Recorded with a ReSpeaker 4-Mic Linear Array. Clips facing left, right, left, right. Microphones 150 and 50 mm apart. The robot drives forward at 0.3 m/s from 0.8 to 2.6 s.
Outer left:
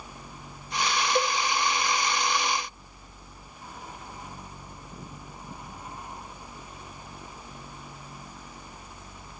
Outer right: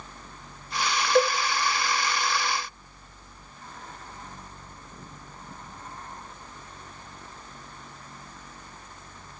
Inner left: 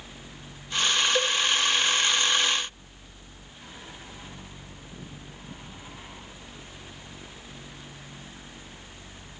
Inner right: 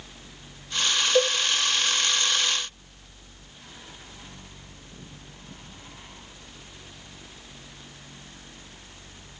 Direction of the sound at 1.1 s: 25° right (ahead or behind).